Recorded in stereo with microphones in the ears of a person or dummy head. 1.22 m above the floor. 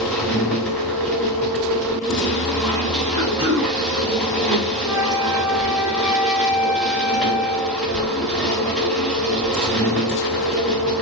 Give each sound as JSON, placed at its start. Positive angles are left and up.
{"t": 0.0, "sound": "a machine running", "side_deg": 0, "distance_m": 1.0}
{"t": 3.2, "sound": "throat clearing", "side_deg": -25, "distance_m": 1.0}
{"t": 4.8, "sound": "a flute", "side_deg": -10, "distance_m": 0.5}